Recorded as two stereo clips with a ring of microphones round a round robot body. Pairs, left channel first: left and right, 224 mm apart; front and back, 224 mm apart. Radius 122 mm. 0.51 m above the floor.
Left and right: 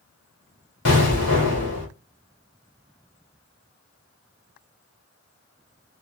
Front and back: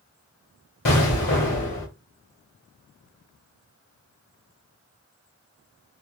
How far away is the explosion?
About 2 m.